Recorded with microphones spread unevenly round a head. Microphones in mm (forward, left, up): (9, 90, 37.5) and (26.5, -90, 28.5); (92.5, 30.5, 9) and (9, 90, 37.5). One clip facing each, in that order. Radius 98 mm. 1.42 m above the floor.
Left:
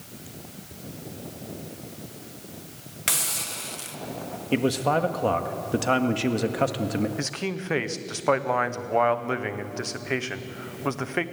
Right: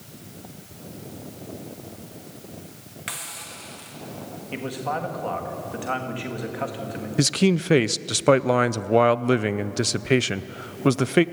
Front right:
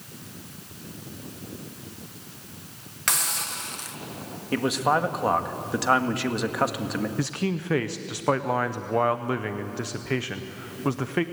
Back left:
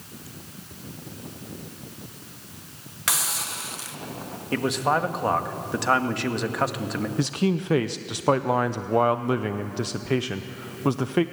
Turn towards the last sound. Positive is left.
turn(degrees=-135)